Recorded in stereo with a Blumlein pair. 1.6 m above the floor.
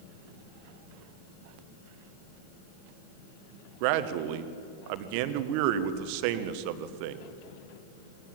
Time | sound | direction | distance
3.8 | a man speaking | 45° right | 1.4 m